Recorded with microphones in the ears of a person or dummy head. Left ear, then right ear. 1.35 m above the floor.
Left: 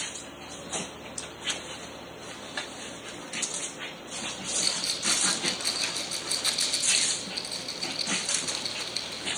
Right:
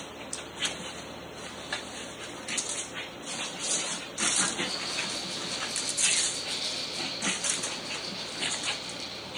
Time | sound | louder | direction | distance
4.6 | a rattle | left 3 dB | 75° left (ahead or behind) | 5 m